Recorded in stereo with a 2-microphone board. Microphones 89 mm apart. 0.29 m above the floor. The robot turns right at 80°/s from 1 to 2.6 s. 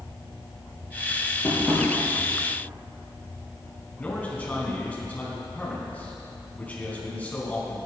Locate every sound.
1.4 s tapping: 25° left (ahead or behind), 4 m; by 1.9 s 5° right (ahead or behind), 4 m
4.0 s a man speaking: 15° left (ahead or behind), 3 m